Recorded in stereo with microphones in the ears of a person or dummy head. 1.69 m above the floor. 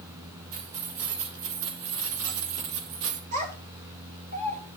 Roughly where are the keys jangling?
Right.